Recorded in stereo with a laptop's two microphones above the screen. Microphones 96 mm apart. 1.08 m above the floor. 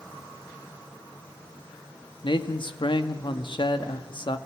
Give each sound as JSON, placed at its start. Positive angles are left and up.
{"t": 2.2, "sound": "a man speaking", "side_deg": 60, "distance_m": 1.6}